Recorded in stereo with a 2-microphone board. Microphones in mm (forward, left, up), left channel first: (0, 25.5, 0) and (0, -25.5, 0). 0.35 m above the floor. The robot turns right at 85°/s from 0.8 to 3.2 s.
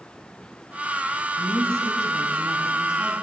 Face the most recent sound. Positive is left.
turn(degrees=10)